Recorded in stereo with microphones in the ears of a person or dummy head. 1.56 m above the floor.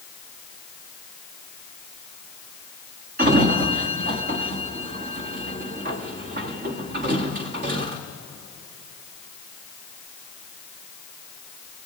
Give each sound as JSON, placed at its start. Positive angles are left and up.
{"t": 3.2, "sound": "a sliding door", "side_deg": -45, "distance_m": 1.4}